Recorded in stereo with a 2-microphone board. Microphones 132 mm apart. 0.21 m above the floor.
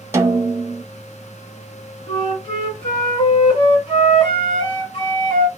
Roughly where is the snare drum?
Centre.